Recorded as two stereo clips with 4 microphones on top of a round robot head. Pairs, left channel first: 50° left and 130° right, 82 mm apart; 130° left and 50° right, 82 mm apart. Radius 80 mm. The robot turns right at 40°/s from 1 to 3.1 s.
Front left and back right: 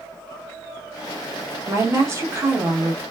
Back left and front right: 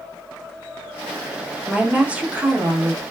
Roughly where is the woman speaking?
Behind right.